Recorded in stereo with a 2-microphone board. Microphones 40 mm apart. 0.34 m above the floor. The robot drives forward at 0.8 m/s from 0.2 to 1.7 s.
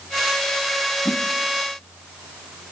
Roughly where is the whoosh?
Left.